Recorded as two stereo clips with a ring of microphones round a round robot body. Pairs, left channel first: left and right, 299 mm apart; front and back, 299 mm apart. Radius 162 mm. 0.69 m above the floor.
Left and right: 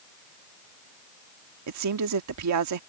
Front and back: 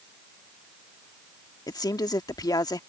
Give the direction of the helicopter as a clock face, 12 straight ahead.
I don't hear a helicopter.